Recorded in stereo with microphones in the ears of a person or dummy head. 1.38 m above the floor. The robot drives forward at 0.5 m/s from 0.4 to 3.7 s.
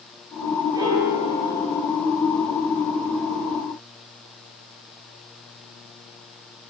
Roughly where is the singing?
No singing in this recording.